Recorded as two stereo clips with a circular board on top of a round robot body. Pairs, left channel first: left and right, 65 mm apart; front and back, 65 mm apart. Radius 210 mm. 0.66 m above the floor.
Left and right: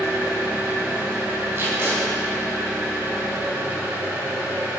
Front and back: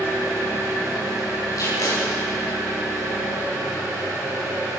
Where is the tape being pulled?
40° right, 3.5 m.